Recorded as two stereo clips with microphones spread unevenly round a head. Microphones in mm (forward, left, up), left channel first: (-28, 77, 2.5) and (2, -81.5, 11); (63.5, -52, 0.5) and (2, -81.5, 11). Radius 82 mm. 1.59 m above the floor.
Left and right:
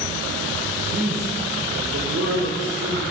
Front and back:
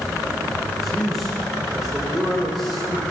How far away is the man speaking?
About 5 m.